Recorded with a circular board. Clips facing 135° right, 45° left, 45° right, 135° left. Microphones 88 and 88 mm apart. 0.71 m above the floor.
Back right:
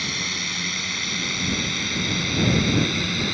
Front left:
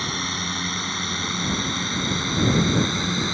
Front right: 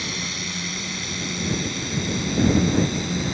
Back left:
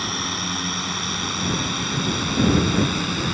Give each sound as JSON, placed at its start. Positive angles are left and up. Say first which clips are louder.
{"t": 0.0, "sound": "a drone", "louder": "front left 3 dB, back left 4 dB", "azimuth_deg": 95}